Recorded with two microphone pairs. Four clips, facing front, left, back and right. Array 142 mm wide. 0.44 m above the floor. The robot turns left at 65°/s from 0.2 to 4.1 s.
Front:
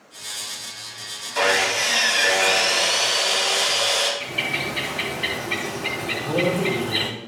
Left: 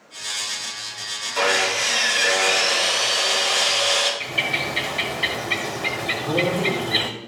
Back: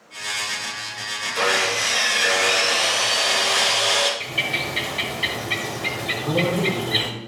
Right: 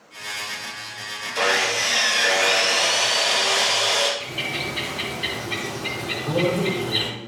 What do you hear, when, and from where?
1.4 s sawing: 15° left, 2.5 m; by 4.1 s 160° right, 2.5 m
4.2 s a bird: 120° left, 1.3 m
6.1 s a man speaking: 150° right, 4 m